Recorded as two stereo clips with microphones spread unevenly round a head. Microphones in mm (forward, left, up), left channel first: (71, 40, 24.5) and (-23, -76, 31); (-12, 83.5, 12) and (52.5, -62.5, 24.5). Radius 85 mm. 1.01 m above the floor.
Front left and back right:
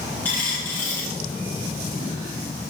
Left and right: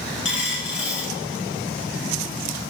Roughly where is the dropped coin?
Behind left.